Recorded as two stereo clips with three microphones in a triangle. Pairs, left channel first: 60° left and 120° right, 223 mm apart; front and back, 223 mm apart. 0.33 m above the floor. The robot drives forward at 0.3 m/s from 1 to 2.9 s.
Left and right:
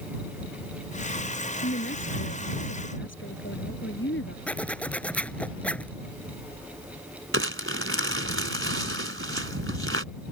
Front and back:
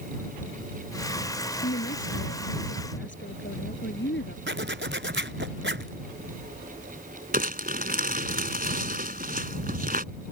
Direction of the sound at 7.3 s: 135° right.